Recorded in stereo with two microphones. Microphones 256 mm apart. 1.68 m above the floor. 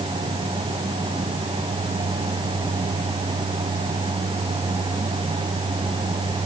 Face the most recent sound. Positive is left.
No sound to turn to.